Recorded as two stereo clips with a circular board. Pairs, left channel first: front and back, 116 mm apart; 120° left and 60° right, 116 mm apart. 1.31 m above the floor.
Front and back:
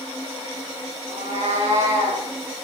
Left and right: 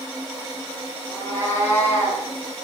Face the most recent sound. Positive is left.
turn(degrees=-165)